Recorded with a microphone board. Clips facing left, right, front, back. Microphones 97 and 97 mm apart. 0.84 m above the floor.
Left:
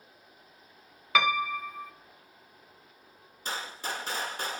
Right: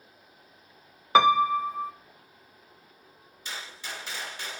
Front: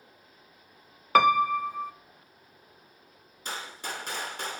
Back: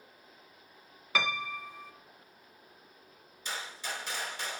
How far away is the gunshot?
About 1.7 m.